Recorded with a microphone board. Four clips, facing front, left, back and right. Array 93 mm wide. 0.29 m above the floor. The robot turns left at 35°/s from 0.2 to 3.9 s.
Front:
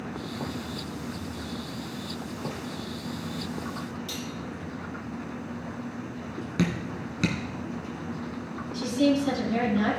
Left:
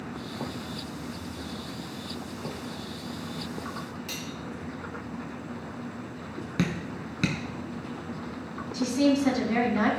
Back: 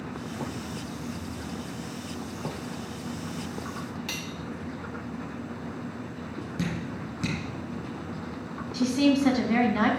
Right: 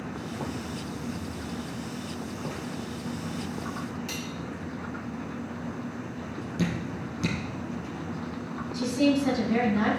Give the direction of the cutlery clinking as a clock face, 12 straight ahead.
6 o'clock.